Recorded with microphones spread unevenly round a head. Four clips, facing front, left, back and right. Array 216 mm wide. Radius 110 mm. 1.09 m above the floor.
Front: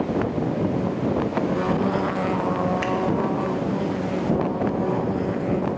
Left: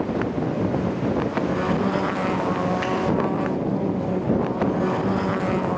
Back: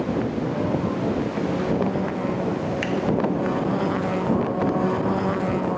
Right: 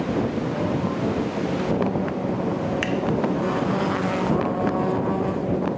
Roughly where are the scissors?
Right.